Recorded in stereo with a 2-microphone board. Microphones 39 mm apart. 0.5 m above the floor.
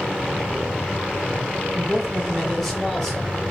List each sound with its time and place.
1.8 s a man speaking: 5° right (ahead or behind), 1.0 m; by 3.4 s 10° left (ahead or behind), 1.8 m